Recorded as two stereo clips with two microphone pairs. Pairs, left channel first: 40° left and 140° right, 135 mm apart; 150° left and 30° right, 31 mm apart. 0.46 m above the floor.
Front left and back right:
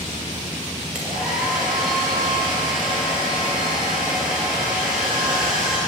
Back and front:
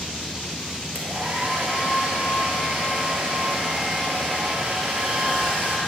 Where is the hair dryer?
55° right, 3.5 m.